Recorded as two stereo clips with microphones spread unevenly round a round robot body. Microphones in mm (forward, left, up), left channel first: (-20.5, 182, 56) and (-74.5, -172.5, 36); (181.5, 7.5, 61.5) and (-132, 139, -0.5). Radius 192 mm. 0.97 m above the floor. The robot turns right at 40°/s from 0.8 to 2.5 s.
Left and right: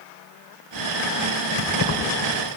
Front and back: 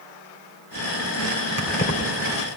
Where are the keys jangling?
25° left, 2.5 m; by 2.0 s 40° left, 2.5 m.